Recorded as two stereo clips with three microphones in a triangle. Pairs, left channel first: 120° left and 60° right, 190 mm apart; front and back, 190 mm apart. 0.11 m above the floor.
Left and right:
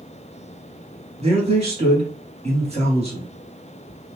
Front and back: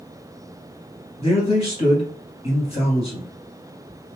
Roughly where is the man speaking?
Ahead right.